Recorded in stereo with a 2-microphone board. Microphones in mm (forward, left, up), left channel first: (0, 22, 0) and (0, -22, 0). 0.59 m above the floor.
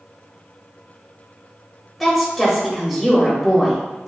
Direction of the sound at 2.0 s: 10° left (ahead or behind).